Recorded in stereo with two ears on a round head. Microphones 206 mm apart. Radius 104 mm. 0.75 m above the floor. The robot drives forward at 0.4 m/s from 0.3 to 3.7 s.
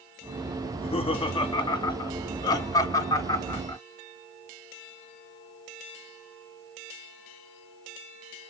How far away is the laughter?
About 1.0 m.